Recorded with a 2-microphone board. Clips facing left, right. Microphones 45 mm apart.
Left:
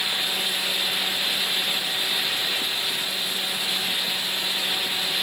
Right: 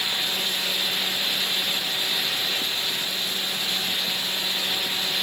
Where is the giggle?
I don't hear a giggle.